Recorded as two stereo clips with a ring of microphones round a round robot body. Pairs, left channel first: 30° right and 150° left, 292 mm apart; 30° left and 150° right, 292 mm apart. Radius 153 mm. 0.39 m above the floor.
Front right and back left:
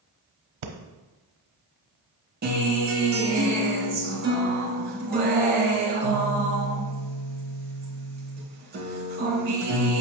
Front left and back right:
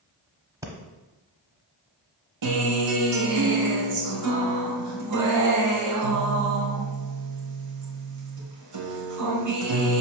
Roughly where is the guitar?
Behind right.